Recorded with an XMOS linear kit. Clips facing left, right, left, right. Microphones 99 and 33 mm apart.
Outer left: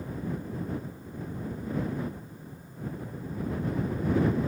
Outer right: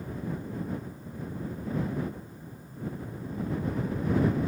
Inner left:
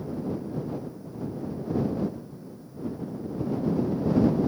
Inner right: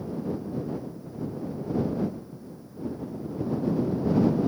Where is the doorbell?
No doorbell in this recording.